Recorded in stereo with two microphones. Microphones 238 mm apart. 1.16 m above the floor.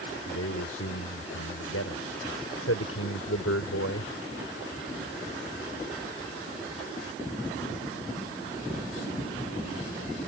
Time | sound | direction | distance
0.3 | a man speaking | 85° left | ?